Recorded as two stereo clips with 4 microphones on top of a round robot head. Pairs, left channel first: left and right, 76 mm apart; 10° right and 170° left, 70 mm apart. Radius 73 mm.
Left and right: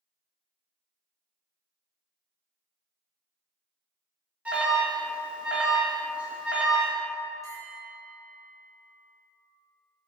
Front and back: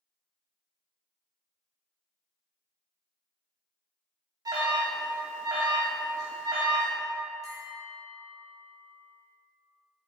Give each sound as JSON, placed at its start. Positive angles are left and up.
{"t": 4.5, "sound": "an alarm", "azimuth_deg": -165, "distance_m": 3.0}
{"t": 7.4, "sound": "a bell", "azimuth_deg": 140, "distance_m": 3.5}